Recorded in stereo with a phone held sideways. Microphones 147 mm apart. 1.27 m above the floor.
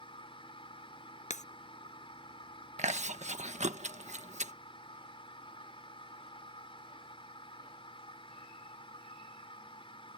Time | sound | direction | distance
0.0 | a machine running | 40° left (ahead or behind) | ?
1.3 | breaking glass | 55° left (ahead or behind) | ?
2.8 | chewing | 50° right (ahead or behind) | ?